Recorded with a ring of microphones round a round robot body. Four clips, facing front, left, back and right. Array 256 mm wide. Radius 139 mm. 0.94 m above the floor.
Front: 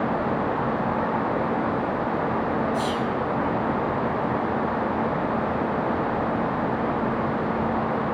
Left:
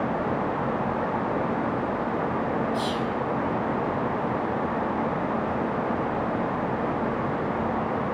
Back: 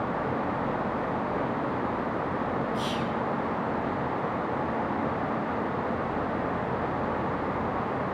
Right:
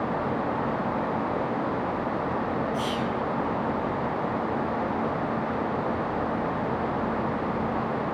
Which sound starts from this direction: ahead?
Whispering, at 2.7 s.